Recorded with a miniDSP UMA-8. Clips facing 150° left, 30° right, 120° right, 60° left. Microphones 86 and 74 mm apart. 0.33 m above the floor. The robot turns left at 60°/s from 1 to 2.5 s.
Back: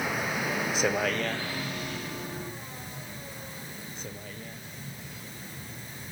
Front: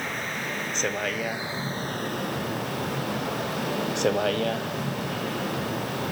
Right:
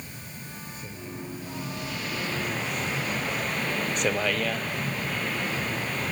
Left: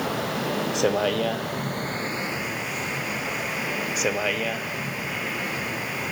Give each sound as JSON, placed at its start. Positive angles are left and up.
{"t": 0.0, "sound": "a vehicle", "azimuth_deg": 65}